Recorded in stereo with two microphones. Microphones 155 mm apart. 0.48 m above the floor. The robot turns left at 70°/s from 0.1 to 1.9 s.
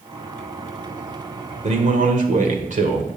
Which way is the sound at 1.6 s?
45° right (ahead or behind).